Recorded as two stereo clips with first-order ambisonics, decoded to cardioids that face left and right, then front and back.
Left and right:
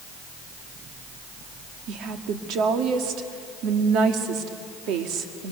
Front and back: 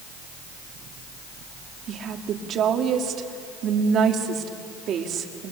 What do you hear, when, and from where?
1.9 s a woman speaking: 125° right, 1.7 m